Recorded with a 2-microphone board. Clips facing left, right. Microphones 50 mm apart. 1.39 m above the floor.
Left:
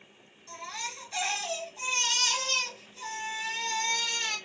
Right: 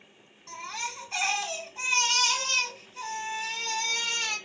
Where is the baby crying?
70° right (ahead or behind), 3 m.